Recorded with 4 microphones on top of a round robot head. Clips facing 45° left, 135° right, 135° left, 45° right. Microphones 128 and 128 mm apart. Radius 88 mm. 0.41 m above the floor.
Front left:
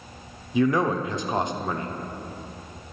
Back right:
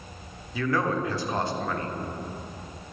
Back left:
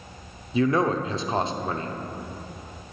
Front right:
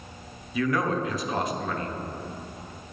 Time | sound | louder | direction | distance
0.5 | a man speaking | front left 5 dB, back left 4 dB | 100° left | 1.0 m